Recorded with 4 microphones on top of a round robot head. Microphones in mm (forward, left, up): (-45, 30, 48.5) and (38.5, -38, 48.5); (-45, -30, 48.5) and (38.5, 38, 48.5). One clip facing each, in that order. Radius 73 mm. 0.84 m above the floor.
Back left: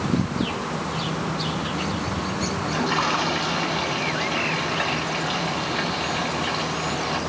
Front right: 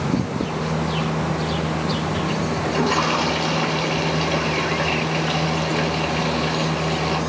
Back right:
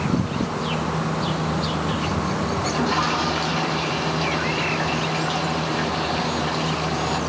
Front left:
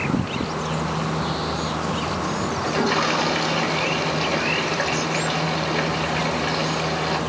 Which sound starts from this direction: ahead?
A toilet flushing, at 2.6 s.